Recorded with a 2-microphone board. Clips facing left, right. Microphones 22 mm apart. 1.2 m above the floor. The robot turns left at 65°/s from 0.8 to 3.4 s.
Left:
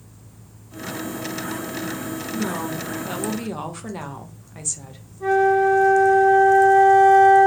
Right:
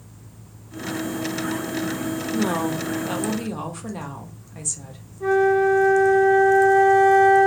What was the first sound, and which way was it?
A woman speaking, 125° right.